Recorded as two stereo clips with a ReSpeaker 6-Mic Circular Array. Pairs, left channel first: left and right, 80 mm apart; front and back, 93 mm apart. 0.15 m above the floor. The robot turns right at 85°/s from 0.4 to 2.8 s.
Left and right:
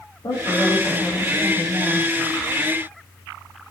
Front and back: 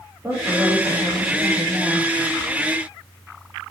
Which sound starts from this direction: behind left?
A woman speaking, at 0.2 s.